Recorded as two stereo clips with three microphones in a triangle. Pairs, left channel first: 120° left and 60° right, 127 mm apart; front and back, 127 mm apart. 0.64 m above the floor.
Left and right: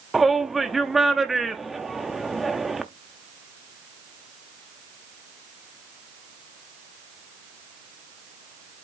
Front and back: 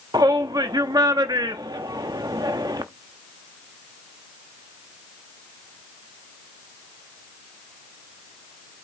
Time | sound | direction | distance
0.1 | a shout | 150° right | 0.6 m